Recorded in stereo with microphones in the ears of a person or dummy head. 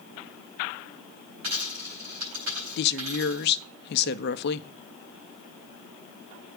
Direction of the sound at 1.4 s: 70° right (ahead or behind).